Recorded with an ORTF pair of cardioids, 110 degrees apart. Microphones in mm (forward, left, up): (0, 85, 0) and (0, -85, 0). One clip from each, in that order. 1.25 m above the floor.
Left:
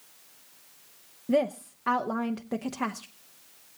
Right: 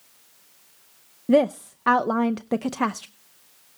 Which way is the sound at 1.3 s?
35° right.